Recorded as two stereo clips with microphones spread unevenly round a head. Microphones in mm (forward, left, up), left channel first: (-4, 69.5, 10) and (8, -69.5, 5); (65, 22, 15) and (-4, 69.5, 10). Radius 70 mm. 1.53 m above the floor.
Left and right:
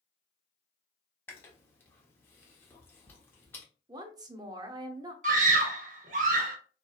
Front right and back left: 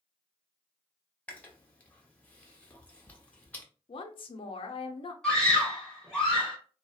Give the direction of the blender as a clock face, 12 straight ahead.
No blender in this recording.